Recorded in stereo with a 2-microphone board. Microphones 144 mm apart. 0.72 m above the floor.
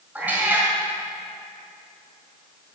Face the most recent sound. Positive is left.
turn(degrees=-10)  # may be behind; listen again after turning